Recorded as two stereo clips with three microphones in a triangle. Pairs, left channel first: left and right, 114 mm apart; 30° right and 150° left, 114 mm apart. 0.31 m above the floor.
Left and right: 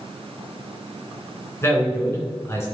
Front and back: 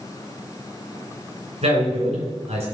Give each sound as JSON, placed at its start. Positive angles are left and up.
{"t": 1.6, "sound": "a man speaking", "azimuth_deg": 155, "distance_m": 3.5}